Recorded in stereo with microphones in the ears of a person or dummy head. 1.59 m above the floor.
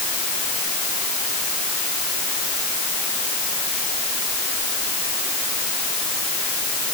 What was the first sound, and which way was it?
Only background noise.